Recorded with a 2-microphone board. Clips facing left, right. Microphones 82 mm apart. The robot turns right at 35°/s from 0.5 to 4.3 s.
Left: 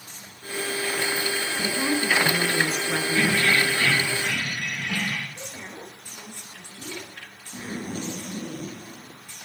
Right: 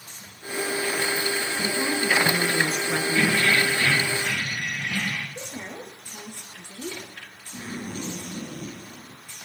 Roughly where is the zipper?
Left.